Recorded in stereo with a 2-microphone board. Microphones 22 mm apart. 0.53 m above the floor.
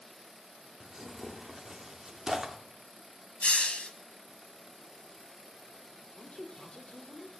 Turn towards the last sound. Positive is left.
turn(degrees=45)  # may be behind; listen again after turning